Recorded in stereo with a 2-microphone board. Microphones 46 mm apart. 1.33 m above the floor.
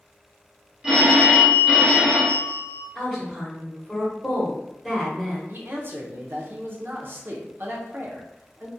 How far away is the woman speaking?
About 1.0 m.